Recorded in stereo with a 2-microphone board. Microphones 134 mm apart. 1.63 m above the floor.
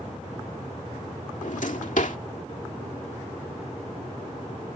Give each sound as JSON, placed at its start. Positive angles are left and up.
{"t": 1.4, "sound": "a drawer", "side_deg": 70}